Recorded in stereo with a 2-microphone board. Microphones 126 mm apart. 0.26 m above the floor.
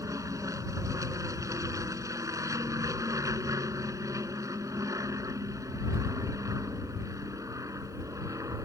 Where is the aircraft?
25° right (ahead or behind).